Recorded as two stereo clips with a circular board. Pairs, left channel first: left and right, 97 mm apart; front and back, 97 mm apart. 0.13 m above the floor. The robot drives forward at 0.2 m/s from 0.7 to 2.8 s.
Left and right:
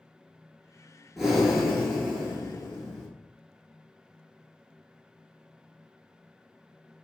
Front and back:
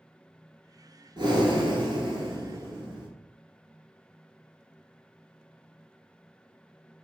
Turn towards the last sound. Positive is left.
turn(degrees=180)